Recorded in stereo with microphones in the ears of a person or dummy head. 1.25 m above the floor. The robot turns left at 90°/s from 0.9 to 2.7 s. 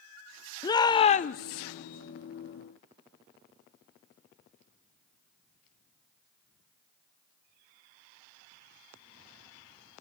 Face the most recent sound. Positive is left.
turn(degrees=-5)